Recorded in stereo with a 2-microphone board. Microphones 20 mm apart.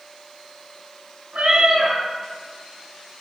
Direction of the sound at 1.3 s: 80° right.